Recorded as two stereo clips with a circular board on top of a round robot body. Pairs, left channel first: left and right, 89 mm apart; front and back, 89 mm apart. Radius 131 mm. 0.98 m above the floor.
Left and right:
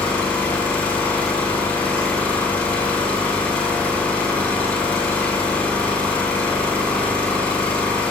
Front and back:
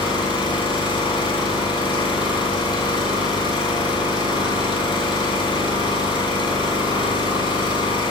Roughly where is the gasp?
No gasp in this recording.